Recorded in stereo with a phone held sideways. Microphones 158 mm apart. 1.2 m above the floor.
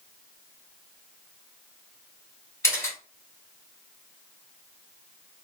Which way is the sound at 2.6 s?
20° left (ahead or behind).